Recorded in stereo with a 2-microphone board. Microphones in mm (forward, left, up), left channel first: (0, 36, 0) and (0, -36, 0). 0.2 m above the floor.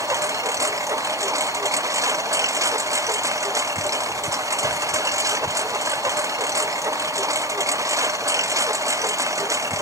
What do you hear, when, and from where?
0.0 s a lawn mower: 45° right (ahead or behind)